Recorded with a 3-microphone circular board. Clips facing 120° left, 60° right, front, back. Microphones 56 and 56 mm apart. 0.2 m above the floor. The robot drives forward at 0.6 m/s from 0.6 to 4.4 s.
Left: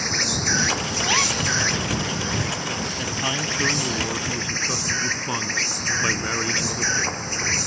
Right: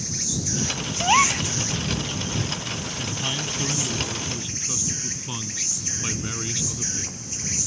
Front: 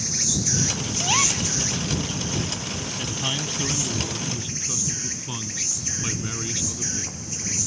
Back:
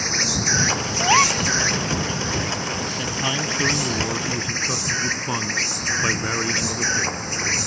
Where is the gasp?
120° right.